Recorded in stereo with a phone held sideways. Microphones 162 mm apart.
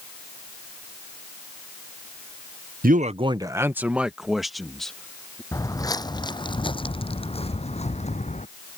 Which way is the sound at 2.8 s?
65° right (ahead or behind).